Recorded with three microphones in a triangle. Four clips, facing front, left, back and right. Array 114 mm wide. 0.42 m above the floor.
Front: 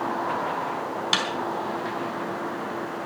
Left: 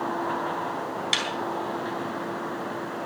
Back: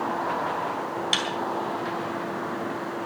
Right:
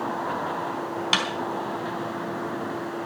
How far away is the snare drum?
About 4 m.